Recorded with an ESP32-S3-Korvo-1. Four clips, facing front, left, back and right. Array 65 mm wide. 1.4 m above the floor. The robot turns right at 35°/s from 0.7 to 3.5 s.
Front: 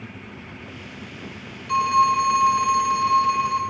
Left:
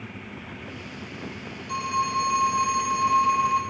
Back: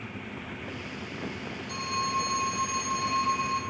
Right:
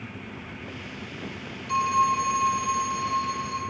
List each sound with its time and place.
1.7 s a phone ringing: 5° right, 1.7 m; by 3.6 s 60° left, 1.7 m